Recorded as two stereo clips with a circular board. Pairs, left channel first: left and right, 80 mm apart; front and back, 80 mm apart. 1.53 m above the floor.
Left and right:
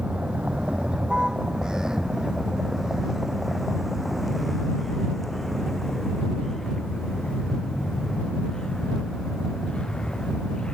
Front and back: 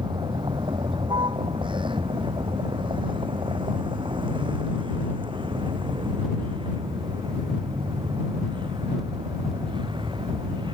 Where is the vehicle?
165° right; by 10.8 s 170° left.